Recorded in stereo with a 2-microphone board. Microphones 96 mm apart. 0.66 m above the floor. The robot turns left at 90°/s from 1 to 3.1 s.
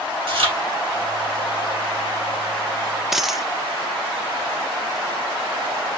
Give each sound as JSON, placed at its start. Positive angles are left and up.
{"t": 0.3, "sound": "chewing", "side_deg": -65, "distance_m": 3.0}
{"t": 3.1, "sound": "a dropped coin", "side_deg": 0, "distance_m": 0.5}